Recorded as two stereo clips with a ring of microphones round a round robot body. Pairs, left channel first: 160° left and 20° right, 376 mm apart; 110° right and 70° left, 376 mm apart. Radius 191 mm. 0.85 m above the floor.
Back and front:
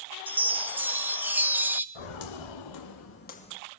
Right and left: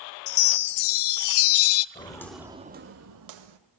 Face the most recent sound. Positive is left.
turn(degrees=80)